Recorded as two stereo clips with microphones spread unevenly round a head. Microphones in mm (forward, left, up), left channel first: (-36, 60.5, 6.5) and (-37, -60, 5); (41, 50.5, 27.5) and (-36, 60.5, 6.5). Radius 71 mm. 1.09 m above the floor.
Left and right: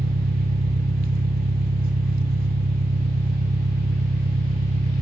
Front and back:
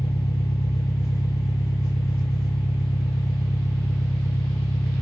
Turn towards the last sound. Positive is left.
turn(degrees=-75)